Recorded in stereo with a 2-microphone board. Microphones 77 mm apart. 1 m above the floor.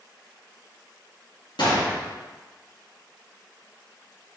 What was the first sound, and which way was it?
A gunshot, 75° left (ahead or behind).